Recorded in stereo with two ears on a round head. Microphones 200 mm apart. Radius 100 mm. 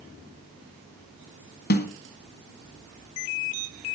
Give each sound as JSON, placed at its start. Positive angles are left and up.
{"t": 1.7, "sound": "a snare drum", "side_deg": 50, "distance_m": 2.0}